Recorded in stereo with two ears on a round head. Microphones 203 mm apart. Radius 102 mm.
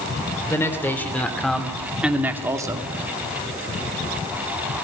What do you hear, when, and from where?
0.5 s a man speaking: 10° left (ahead or behind), 3 m; by 2.9 s 20° right (ahead or behind), 1.8 m